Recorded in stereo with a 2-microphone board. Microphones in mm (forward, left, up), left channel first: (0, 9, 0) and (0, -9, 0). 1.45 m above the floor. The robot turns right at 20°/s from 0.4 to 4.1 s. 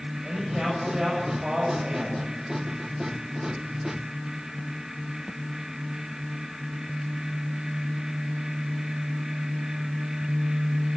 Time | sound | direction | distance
0.2 | a man speaking | 150° right | 8 m